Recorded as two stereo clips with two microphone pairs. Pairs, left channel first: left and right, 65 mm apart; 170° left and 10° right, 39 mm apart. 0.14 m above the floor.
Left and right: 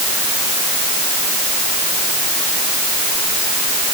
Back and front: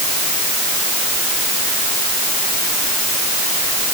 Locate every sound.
Only background noise.